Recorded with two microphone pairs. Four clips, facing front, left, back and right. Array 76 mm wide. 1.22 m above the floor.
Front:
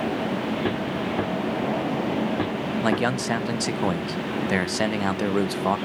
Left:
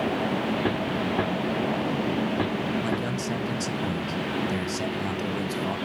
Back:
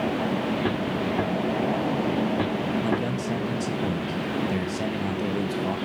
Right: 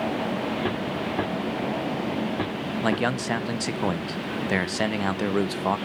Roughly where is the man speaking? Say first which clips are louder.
Right 3 dB, front 3 dB; ahead right.